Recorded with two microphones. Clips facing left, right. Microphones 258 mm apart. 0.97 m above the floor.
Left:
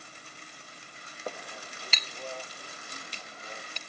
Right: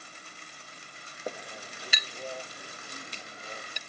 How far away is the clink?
About 0.7 m.